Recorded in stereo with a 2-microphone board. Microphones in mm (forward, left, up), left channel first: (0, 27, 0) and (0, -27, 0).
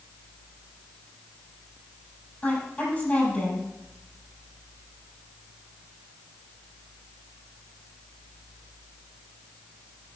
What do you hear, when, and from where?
2.4 s a woman speaking: 20° left (ahead or behind), 6 m